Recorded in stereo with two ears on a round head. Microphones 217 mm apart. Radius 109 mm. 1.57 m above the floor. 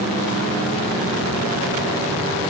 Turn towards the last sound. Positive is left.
No sound to turn to.